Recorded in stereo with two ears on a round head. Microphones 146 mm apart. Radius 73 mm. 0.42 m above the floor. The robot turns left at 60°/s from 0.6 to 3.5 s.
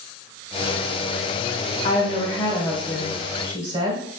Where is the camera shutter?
I don't hear a camera shutter.